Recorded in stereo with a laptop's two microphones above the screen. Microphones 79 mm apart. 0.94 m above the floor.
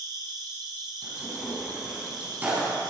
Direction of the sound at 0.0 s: 60° right (ahead or behind).